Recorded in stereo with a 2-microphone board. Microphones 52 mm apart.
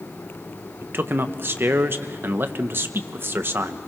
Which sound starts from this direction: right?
A man speaking, at 0.8 s.